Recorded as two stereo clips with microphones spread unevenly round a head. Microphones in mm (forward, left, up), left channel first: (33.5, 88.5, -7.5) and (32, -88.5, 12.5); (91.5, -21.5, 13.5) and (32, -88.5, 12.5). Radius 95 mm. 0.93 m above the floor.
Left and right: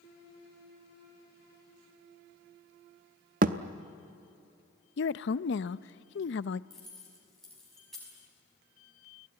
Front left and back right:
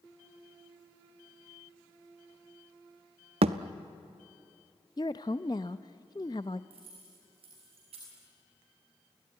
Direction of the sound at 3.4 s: 140° right.